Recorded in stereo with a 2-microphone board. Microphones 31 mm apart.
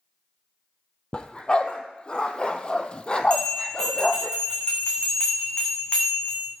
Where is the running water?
I don't hear running water.